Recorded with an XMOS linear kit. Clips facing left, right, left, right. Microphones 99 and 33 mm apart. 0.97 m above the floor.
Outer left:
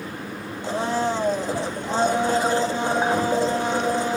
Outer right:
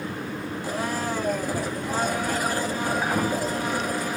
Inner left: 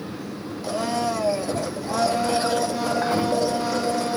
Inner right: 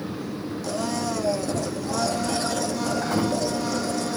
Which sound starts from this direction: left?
A blender, at 0.6 s.